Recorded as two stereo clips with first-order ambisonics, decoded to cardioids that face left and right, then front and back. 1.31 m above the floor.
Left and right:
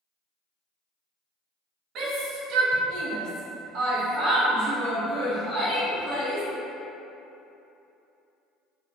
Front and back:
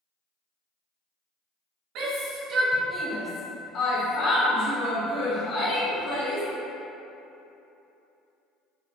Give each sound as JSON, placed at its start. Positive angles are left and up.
{"t": 1.9, "sound": "a shout", "azimuth_deg": -145, "distance_m": 0.8}